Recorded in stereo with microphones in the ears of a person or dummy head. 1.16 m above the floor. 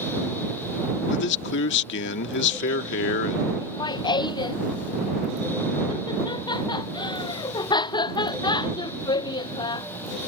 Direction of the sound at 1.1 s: 65° left (ahead or behind).